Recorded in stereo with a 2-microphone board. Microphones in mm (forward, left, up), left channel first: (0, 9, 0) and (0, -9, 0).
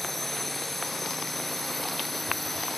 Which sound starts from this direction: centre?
A drone, at 0.0 s.